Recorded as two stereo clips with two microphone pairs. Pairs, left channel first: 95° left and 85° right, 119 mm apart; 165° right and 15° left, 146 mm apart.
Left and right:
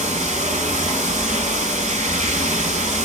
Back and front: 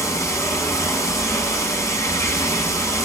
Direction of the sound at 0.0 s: 95° right.